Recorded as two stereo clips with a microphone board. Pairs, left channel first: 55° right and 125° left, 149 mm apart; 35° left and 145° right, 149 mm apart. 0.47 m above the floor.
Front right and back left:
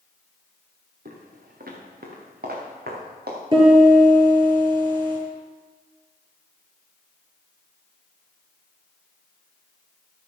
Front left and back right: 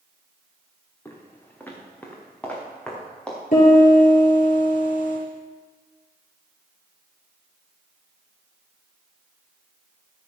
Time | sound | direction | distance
1.1 | footsteps | 110° left | 3 m
3.5 | a piano | 70° left | 6.5 m